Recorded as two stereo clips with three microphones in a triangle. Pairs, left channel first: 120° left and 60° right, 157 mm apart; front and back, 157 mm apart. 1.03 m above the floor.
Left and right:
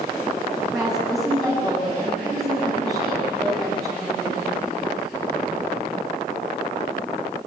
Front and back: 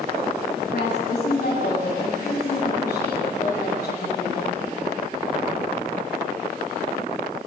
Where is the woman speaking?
30° left, 8.5 m.